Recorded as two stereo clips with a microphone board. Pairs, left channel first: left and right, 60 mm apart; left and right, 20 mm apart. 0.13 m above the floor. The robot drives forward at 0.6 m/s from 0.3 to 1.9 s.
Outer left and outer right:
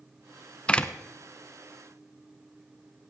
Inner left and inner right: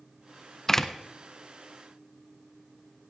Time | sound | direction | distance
0.7 | a door slam | 20° left (ahead or behind) | 1.0 m